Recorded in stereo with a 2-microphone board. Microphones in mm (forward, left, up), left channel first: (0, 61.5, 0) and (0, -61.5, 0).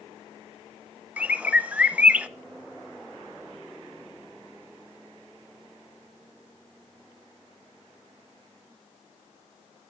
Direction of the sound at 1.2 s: 10° right (ahead or behind).